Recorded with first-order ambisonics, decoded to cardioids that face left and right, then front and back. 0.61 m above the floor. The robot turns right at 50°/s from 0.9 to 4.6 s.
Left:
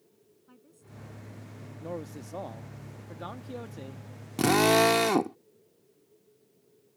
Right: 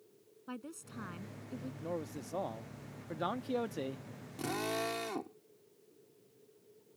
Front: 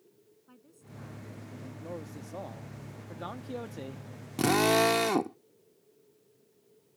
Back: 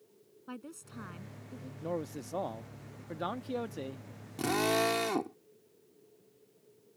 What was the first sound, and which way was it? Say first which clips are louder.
A woman speaking: right 10 dB, back 10 dB; 135° right.